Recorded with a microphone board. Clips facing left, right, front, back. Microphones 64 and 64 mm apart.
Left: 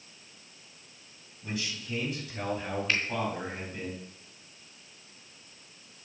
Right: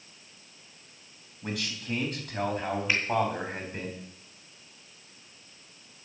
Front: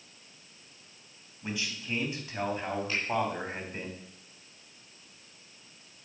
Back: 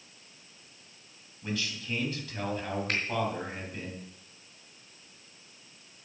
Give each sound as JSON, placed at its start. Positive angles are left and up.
{"t": 1.4, "sound": "a man speaking", "azimuth_deg": -75, "distance_m": 3.5}
{"t": 2.9, "sound": "a finger snap", "azimuth_deg": -165, "distance_m": 4.0}